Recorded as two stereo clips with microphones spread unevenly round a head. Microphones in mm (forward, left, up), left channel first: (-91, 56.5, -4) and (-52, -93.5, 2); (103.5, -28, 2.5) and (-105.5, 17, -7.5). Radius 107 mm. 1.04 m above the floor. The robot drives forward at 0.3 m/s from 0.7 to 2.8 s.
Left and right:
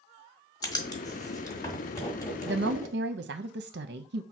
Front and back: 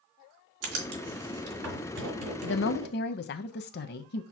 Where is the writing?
170° left, 1.5 m; by 2.9 s 175° left, 2 m.